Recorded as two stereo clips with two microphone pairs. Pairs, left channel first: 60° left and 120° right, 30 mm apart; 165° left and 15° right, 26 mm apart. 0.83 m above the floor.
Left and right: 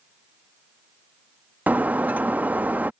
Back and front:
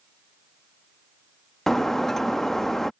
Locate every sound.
1.7 s breaking glass: 125° right